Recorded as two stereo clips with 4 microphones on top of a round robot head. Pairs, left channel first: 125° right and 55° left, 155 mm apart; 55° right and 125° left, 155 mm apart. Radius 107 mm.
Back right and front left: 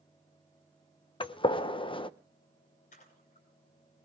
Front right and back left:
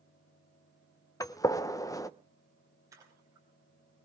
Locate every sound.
1.2 s a gunshot: 105° right, 0.7 m
2.9 s a splash: 165° right, 4.5 m